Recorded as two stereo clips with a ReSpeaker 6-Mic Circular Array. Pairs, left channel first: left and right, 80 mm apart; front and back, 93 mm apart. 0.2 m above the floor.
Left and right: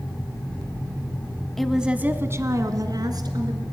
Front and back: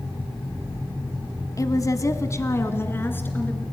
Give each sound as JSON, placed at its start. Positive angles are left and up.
{"t": 1.6, "sound": "a woman speaking", "azimuth_deg": 5, "distance_m": 1.3}